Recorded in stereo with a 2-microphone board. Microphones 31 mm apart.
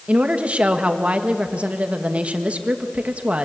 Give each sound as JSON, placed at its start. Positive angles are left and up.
{"t": 0.1, "sound": "a woman speaking", "side_deg": -50, "distance_m": 1.7}